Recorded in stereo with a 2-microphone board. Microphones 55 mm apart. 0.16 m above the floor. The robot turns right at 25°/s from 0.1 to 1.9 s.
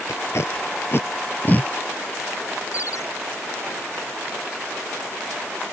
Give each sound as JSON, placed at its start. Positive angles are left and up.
{"t": 0.1, "sound": "tape being pulled", "side_deg": 70}
{"t": 2.7, "sound": "a ringtone", "side_deg": 65}